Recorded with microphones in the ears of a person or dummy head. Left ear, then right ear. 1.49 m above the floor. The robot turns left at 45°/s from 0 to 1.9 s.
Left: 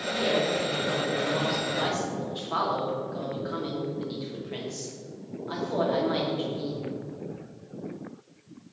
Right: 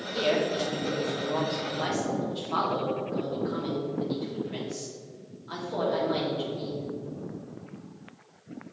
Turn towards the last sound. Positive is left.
turn(degrees=165)